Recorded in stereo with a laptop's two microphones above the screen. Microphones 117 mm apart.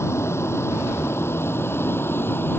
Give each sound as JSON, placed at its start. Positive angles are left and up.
{"t": 0.0, "sound": "a vehicle", "side_deg": 20}